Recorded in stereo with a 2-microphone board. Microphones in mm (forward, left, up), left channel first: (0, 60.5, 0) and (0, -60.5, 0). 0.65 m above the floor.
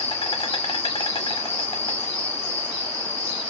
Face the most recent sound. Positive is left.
turn(degrees=50)  # may be behind; listen again after turning